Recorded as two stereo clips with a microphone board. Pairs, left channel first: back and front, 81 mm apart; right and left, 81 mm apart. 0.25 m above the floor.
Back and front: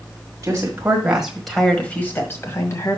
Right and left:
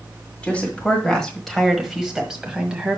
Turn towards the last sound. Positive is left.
turn(degrees=165)